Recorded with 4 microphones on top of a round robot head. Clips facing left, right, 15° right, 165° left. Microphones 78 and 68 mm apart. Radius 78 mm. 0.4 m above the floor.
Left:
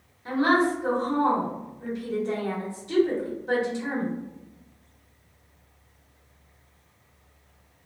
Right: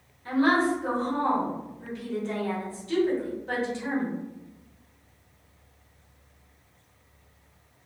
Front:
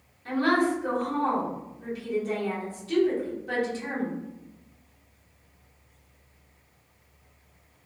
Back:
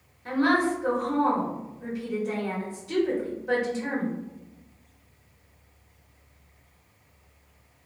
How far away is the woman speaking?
About 1.3 m.